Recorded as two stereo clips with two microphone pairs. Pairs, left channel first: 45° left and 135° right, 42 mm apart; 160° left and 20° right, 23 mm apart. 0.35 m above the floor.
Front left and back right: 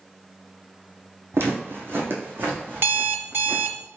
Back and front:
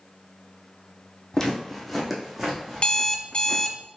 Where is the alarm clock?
160° right, 0.5 m.